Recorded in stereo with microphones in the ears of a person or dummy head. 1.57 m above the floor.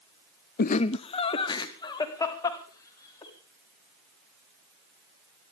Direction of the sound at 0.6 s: 40° left (ahead or behind).